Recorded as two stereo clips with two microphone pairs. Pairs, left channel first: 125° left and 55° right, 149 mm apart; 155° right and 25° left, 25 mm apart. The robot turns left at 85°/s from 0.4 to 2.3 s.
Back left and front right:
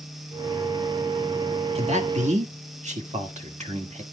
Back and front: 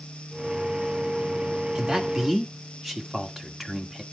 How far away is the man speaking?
About 1.6 m.